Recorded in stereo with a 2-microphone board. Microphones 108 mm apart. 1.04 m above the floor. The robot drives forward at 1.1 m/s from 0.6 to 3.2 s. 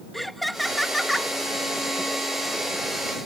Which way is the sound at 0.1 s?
Centre (ahead or behind).